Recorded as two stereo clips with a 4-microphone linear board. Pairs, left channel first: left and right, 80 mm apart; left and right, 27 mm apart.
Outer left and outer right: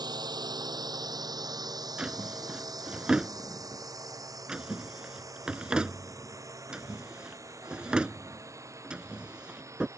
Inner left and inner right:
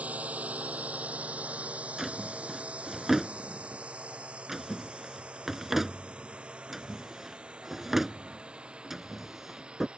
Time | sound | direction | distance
0.0 | a drone | 65° right (ahead or behind) | ?
2.0 | a drawer | 10° right (ahead or behind) | ?